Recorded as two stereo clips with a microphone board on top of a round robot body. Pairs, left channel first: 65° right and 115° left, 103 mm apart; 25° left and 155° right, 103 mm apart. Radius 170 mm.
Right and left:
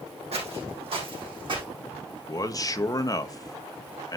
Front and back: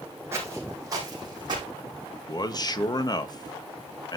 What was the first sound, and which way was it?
Footsteps, 135° left.